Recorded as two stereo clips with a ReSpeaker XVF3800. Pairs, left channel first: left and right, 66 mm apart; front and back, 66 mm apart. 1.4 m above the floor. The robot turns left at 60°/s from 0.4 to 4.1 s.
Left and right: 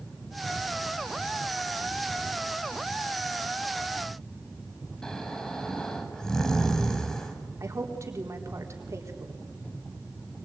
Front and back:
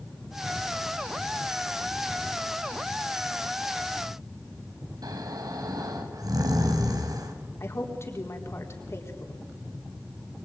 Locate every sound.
5.0 s snoring: 170° left, 4 m
7.6 s a woman speaking: 45° right, 4 m